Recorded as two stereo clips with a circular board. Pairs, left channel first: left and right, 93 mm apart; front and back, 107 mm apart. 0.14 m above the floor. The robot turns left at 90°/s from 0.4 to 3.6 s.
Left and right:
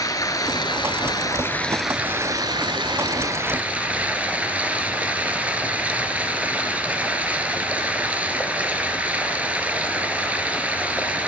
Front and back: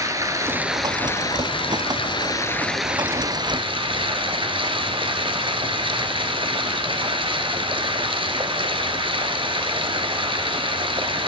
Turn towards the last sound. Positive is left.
turn(degrees=-160)